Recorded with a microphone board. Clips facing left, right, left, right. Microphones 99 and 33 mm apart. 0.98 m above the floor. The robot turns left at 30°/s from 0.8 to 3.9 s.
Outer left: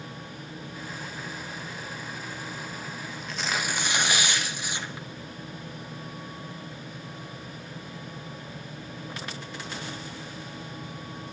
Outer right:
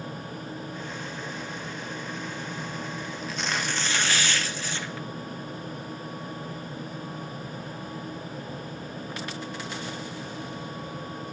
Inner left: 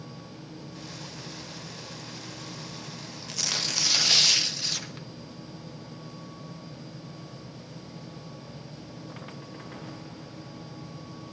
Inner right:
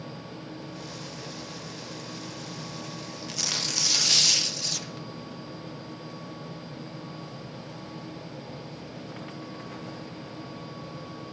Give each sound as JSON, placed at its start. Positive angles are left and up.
{"t": 3.3, "sound": "tearing paper", "side_deg": 0, "distance_m": 0.7}